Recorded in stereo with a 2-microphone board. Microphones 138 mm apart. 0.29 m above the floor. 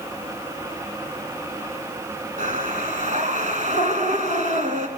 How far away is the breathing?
About 3 m.